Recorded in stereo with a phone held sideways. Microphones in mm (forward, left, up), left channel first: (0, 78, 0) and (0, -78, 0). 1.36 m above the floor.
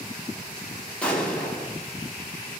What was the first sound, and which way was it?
An explosion, 10° left (ahead or behind).